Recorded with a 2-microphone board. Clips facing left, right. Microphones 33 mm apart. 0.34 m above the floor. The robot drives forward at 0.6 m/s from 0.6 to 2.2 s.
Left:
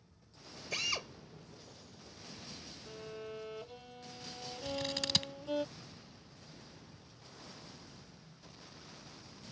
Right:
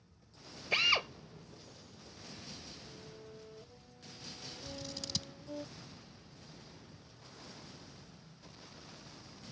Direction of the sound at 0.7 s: 40° right (ahead or behind).